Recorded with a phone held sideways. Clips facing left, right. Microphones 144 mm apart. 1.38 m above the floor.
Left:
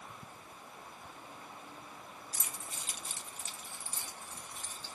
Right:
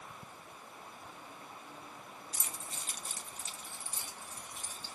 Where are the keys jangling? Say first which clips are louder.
Right 1 dB; 25° right (ahead or behind), 1.2 m; by 5.0 s 10° right (ahead or behind), 2.5 m.